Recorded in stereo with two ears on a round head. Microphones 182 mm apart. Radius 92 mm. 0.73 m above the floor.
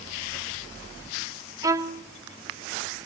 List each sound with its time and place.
1.6 s a violin: 20° right (ahead or behind), 1.6 m